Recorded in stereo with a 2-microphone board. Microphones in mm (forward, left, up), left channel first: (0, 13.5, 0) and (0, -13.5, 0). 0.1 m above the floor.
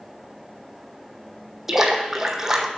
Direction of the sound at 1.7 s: 15° right (ahead or behind).